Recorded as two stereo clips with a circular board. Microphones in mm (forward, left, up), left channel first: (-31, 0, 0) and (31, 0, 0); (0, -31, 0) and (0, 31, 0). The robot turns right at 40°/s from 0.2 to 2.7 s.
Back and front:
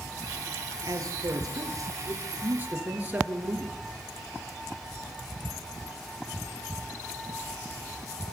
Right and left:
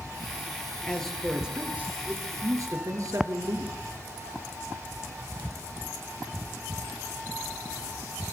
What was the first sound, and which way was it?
A man speaking, 15° right.